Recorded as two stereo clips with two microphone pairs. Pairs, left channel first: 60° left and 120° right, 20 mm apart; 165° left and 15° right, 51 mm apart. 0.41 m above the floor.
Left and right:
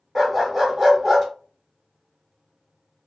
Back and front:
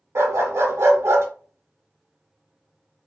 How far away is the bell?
I don't hear a bell.